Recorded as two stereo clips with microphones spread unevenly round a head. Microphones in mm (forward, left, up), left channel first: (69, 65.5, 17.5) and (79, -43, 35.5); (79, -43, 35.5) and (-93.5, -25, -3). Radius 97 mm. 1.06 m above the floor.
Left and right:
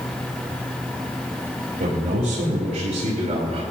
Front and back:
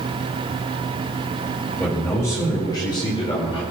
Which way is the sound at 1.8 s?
90° right.